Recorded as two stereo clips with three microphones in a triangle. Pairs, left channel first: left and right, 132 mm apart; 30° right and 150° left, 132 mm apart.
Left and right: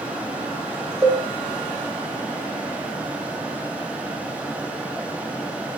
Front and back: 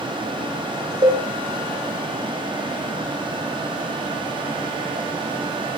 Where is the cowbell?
155° right, 3.5 m.